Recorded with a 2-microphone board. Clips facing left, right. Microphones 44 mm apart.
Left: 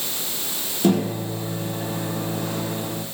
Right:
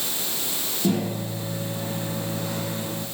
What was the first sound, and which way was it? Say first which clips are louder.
A microwave: left 5 dB; 60° left (ahead or behind).